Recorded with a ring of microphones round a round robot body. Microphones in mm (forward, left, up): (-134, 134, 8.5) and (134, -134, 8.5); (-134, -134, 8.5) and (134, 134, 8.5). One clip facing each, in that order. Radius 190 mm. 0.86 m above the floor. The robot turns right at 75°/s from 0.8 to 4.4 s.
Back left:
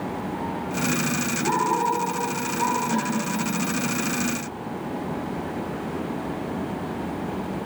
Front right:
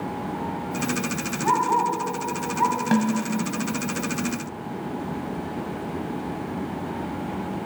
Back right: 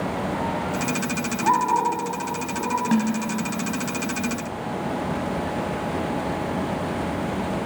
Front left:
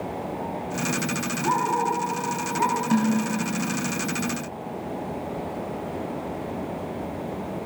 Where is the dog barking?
110° right, 3 m; by 2.8 s 5° right, 3 m.